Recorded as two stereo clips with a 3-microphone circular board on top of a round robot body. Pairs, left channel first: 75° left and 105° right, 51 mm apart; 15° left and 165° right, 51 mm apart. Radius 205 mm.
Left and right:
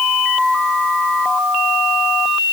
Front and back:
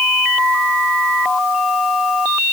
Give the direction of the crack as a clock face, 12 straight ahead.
I don't hear a crack.